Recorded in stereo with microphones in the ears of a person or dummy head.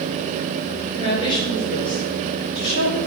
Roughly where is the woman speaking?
Left.